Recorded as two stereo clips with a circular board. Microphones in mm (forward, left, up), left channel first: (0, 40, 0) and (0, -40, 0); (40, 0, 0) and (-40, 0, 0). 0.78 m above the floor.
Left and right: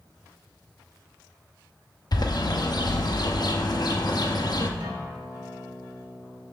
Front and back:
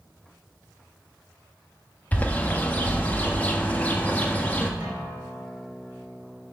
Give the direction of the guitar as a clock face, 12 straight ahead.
4 o'clock.